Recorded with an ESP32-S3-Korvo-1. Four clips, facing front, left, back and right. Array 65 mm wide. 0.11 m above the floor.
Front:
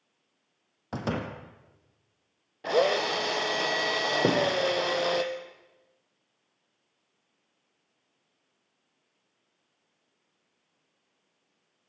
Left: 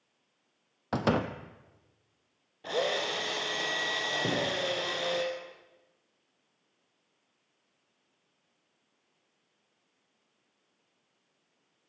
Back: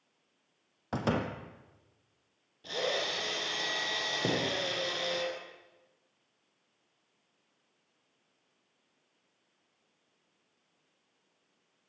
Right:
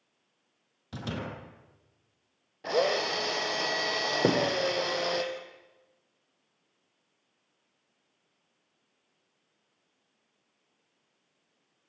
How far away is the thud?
About 3 m.